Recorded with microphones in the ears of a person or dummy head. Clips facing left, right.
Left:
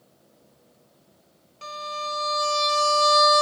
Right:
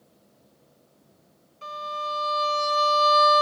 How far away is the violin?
About 1.3 m.